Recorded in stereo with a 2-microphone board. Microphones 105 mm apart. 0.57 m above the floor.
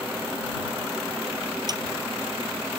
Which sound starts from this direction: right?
A snare drum, at 1.7 s.